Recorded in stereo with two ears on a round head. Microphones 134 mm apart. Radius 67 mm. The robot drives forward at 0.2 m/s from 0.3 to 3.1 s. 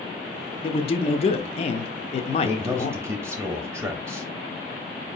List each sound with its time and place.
0.6 s a man speaking: 40° left (ahead or behind), 0.6 m
2.4 s a man speaking: 15° right (ahead or behind), 1.1 m